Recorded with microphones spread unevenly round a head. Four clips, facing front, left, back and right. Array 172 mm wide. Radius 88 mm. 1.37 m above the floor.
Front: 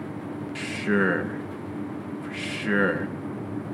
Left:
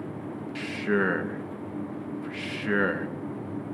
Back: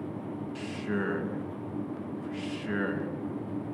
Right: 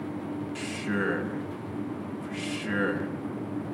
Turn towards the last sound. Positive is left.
turn(degrees=25)